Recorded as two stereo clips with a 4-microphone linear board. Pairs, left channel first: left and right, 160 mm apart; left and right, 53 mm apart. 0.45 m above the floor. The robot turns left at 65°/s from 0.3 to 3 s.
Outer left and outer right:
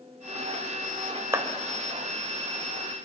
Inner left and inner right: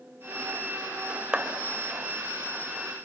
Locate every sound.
1.3 s a clap: 15° right (ahead or behind), 2.0 m; by 1.5 s 25° right (ahead or behind), 2.0 m